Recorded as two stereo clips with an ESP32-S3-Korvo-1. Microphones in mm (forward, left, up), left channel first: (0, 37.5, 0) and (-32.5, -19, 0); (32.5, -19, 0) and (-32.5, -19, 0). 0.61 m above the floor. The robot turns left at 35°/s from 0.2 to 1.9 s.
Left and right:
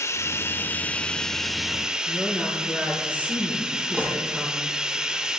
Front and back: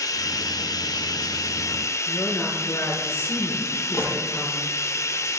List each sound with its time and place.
0.0 s running water: 20° left, 0.9 m; by 5.4 s 40° right, 0.9 m
2.1 s a woman speaking: 55° right, 9 m
3.9 s a gunshot: 50° right, 9 m